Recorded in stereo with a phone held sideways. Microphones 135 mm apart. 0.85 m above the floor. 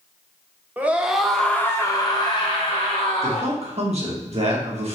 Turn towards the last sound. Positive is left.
turn(degrees=-55)  # may be behind; listen again after turning